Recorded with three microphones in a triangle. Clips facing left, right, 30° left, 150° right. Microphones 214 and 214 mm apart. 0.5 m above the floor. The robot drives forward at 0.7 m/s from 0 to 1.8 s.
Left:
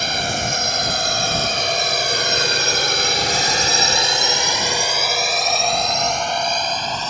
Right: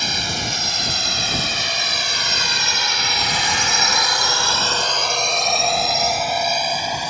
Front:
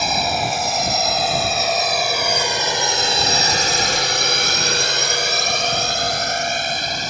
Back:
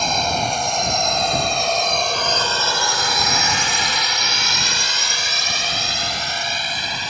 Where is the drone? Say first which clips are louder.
Left 4 dB, even; 115° left; by 7.1 s 10° right.